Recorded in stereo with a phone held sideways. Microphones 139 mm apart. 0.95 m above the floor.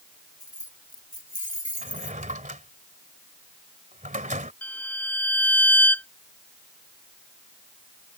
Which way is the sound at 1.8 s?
65° right (ahead or behind).